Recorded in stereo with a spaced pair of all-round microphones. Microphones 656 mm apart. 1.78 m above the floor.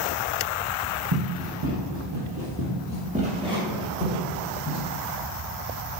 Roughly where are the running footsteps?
Right.